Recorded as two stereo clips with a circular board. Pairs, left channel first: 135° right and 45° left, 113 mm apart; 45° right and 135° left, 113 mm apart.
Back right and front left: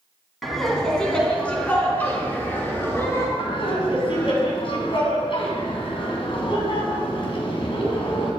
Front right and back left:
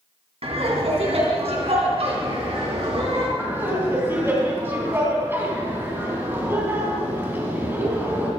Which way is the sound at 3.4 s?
155° right.